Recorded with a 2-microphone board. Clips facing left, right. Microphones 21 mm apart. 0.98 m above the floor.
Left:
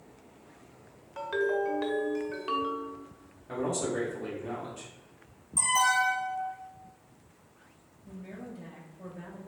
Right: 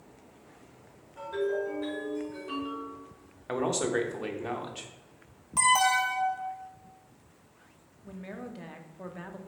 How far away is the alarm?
About 0.7 m.